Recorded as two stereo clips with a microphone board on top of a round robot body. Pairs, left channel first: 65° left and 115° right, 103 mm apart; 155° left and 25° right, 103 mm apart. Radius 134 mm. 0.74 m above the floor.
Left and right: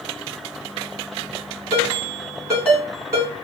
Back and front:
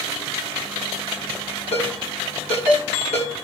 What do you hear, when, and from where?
1.7 s a ringtone: straight behind, 3 m